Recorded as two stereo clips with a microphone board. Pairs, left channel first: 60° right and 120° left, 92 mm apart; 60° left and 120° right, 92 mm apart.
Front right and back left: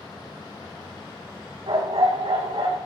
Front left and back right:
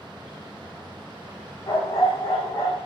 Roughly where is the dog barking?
Behind left.